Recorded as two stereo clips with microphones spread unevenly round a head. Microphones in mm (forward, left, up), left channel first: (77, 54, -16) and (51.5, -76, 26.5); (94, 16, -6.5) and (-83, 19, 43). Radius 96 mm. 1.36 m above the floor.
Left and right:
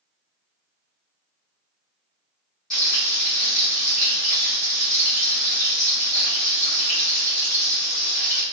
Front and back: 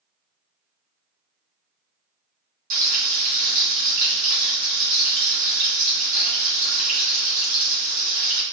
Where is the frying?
165° left, 1.3 m.